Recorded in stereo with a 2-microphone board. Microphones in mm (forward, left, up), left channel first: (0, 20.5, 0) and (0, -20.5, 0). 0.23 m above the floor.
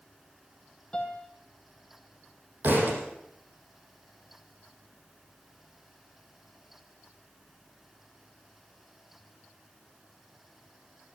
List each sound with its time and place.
0.9 s a piano: 25° left (ahead or behind), 2.5 m
2.6 s a thud: 55° right (ahead or behind), 5 m